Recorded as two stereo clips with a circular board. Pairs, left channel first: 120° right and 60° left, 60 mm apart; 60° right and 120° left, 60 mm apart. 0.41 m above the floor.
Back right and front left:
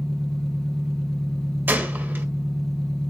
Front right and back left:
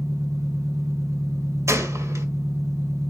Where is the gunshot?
105° left, 1.6 m.